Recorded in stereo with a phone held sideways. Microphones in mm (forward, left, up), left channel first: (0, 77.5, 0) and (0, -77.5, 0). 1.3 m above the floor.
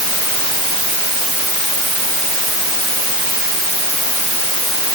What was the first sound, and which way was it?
Only background noise.